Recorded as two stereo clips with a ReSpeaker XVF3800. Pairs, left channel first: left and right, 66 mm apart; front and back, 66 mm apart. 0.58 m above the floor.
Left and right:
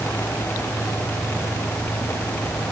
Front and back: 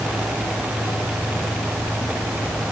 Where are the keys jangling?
I don't hear keys jangling.